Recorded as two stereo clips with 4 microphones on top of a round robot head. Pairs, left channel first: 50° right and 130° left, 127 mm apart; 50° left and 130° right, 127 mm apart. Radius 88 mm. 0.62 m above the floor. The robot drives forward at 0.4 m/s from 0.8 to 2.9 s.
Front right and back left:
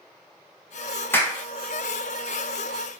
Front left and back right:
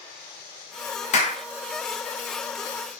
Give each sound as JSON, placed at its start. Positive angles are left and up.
{"t": 1.1, "sound": "a clap", "azimuth_deg": 25, "distance_m": 1.5}